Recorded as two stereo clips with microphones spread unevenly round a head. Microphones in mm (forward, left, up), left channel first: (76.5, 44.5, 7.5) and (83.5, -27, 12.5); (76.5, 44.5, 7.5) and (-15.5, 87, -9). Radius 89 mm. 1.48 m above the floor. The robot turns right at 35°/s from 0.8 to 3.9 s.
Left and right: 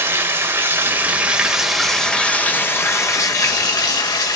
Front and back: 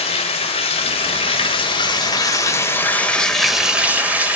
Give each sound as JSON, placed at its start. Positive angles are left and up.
{"t": 0.0, "sound": "running water", "azimuth_deg": -30, "distance_m": 2.5}